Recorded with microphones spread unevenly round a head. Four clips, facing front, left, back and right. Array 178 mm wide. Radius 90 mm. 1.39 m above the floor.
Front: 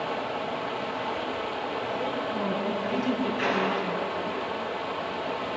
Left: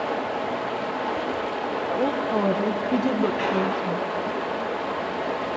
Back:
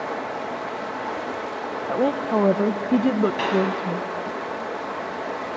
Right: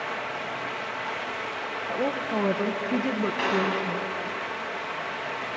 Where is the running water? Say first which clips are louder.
Left 6 dB, back 2 dB; 110° left, 0.8 m.